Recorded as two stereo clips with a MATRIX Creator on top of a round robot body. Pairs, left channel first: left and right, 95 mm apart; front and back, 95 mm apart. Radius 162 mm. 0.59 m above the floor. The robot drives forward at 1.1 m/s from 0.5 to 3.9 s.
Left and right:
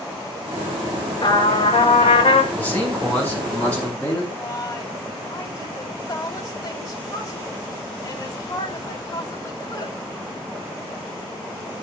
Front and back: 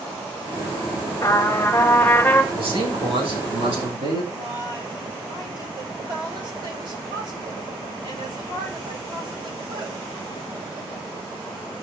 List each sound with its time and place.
1.2 s a trumpet: 55° left, 4 m; by 2.4 s 75° left, 3.5 m
2.5 s a man speaking: 165° left, 8 m; by 4.2 s 170° left, 9.5 m
4.3 s a woman speaking: 140° left, 3.5 m